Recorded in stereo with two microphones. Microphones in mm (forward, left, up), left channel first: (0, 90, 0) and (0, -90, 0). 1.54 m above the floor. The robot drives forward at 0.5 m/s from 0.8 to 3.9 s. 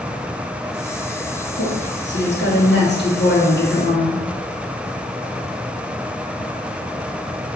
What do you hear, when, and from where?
1.6 s a woman speaking: 80° left, 2.5 m; by 4.2 s 65° left (ahead or behind), 2.5 m